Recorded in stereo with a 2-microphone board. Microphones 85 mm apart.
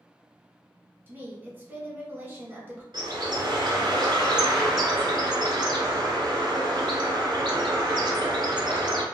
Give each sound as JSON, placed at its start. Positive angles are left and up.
{"t": 1.1, "sound": "a woman speaking", "side_deg": -25, "distance_m": 1.1}
{"t": 2.9, "sound": "a bird", "side_deg": -60, "distance_m": 0.9}